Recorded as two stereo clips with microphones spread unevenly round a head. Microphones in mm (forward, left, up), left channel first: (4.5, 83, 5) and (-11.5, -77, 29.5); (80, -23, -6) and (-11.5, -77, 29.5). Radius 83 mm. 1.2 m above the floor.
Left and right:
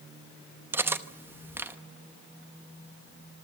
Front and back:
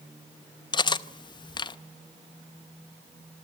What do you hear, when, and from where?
0.7 s cutlery clinking: 25° right, 0.8 m